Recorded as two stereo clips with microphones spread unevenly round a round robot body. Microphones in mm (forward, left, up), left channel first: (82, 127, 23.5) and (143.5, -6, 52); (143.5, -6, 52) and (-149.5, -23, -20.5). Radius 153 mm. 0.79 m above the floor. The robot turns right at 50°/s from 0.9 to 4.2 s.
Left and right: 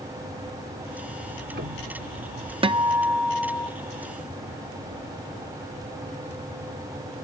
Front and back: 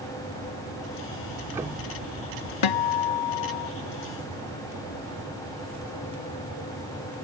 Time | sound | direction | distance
1.2 | ticking | 115° right | ?
2.6 | a guitar | 5° right | ?